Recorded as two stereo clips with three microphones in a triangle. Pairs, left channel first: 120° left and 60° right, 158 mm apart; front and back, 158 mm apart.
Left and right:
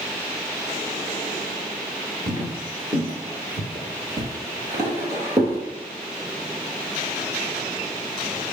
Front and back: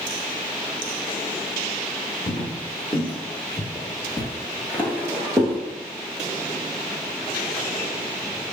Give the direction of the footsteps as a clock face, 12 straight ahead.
12 o'clock.